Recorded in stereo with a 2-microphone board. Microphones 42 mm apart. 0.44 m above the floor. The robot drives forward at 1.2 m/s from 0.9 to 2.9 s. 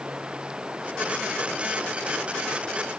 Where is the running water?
20° right (ahead or behind); by 3.0 s 25° right (ahead or behind).